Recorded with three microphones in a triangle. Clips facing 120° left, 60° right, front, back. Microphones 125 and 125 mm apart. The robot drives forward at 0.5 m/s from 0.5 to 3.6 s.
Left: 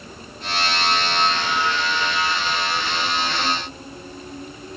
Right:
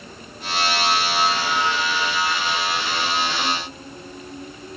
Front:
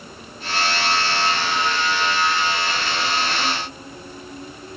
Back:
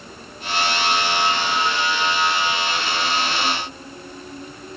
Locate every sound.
Only background noise.